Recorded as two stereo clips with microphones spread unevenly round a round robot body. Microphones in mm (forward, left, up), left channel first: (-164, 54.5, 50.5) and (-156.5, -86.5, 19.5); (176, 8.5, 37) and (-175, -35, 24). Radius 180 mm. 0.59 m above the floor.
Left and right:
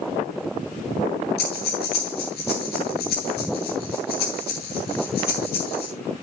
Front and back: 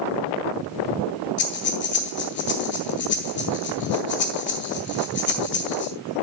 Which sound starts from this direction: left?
Breathing, at 1.4 s.